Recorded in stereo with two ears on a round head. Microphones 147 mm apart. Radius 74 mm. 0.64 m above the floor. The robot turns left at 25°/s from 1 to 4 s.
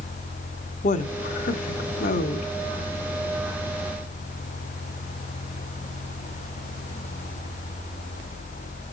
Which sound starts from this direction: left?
A woman speaking, at 0.8 s.